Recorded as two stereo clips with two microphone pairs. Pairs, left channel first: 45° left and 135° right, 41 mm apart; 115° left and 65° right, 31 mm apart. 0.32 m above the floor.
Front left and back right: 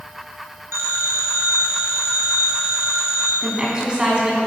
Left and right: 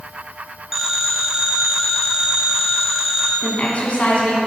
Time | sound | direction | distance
0.7 | a phone ringing | 145° right | 2 m
3.4 | a woman speaking | 155° left | 3.5 m